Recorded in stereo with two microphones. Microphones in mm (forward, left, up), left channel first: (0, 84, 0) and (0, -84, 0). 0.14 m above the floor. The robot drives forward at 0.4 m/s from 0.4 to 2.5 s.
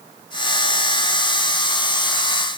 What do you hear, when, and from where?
Only background noise.